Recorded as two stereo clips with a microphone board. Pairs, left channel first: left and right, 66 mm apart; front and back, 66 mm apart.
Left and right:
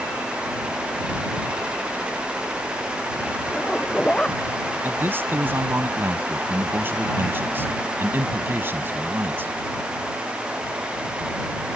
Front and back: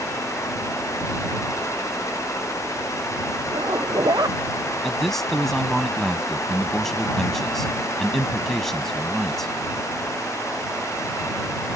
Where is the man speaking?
80° right.